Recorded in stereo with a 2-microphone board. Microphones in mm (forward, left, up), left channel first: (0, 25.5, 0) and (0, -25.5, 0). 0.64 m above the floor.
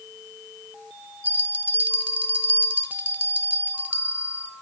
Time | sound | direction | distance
1.2 | a bell | 35° right (ahead or behind) | 1.1 m